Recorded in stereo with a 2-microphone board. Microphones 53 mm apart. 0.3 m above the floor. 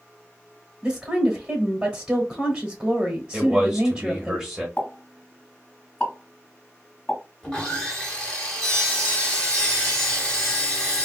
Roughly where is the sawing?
Centre.